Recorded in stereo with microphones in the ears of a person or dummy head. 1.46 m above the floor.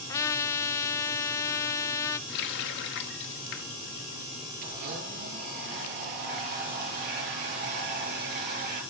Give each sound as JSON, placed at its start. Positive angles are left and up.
{"t": 0.1, "sound": "a trumpet", "side_deg": 15, "distance_m": 0.7}
{"t": 2.3, "sound": "a running tap", "side_deg": 65, "distance_m": 1.5}
{"t": 4.6, "sound": "a blender", "side_deg": -50, "distance_m": 7.5}